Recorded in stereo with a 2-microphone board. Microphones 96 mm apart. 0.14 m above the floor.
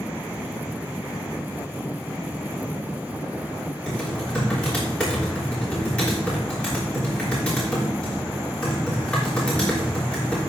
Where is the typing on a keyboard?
10° left (ahead or behind), 6.5 m.